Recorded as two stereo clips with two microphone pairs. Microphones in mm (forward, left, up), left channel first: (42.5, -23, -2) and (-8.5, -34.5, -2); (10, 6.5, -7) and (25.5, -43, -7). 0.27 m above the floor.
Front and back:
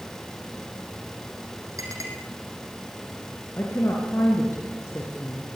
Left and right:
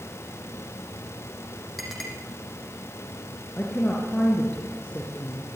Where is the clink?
160° right, 6 m.